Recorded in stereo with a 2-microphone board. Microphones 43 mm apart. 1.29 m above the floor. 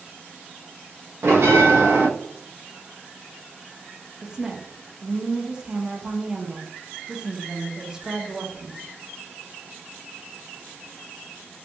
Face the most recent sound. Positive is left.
turn(degrees=-15)  # may be behind; listen again after turning